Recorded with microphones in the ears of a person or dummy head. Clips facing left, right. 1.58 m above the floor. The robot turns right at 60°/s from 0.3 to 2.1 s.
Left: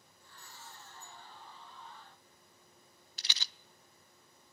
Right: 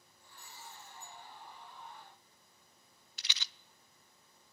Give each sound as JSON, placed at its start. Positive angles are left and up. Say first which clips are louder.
{"t": 0.2, "sound": "breaking glass", "louder": "right 1 dB", "azimuth_deg": -170, "distance_m": 10.0}
{"t": 3.2, "sound": "a rattle", "louder": "left 1 dB", "side_deg": 35, "distance_m": 0.5}